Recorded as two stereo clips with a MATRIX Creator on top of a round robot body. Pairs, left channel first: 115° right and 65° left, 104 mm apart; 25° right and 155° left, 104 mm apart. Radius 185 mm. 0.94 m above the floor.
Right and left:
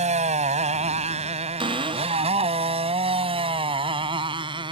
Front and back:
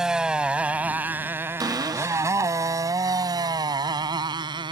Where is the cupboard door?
105° left.